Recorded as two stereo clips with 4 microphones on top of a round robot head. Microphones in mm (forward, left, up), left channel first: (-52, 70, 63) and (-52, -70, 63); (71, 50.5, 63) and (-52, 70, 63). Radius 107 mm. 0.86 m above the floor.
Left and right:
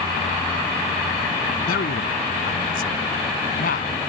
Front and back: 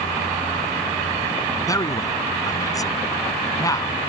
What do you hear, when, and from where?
1.7 s a man speaking: 55° left